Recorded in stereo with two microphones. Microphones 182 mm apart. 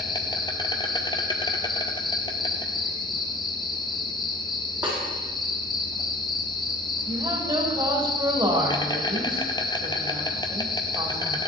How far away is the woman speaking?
About 4 m.